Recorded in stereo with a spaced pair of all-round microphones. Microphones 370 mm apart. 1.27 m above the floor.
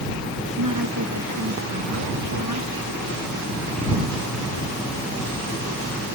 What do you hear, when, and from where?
0.6 s a woman speaking: 60° right (ahead or behind)